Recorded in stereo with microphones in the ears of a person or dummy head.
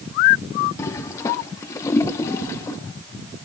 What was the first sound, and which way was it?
A toilet flushing, 20° left (ahead or behind).